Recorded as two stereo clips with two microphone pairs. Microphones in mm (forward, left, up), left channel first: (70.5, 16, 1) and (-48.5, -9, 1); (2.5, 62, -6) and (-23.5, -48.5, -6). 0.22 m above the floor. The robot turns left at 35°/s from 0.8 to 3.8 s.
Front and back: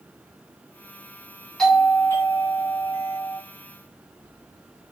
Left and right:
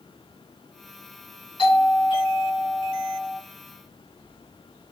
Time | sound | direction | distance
1.6 | a doorbell | 95° left | 2.5 m